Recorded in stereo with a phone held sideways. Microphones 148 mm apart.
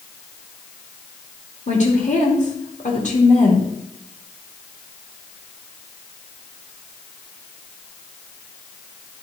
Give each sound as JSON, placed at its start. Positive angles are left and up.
{"t": 1.7, "sound": "a woman speaking", "side_deg": 55, "distance_m": 2.5}